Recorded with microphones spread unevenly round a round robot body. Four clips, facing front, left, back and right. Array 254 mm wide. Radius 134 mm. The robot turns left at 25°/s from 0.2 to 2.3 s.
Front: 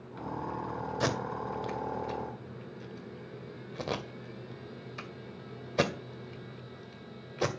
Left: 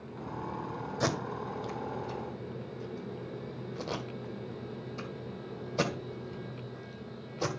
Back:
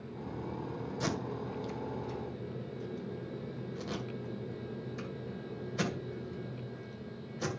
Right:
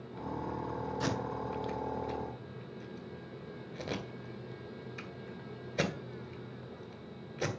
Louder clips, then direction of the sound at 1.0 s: Left 5 dB, front 4 dB; 45° left.